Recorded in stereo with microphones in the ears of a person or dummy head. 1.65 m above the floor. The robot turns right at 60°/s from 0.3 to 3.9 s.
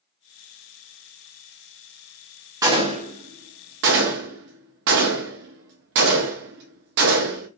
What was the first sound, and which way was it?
A gunshot, 20° right (ahead or behind).